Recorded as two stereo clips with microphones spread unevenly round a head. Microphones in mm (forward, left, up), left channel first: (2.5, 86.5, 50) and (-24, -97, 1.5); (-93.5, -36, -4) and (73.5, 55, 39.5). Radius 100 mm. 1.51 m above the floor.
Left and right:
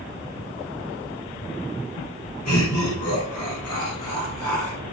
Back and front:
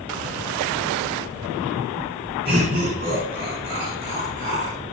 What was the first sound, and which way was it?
Laughter, 75° left.